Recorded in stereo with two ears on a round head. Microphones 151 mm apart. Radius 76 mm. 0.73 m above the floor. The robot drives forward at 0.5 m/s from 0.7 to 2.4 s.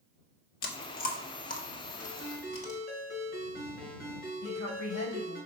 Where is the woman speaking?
50° left (ahead or behind), 4 m.